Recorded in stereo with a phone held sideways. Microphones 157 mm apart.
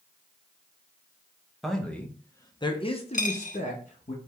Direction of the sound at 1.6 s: Centre (ahead or behind).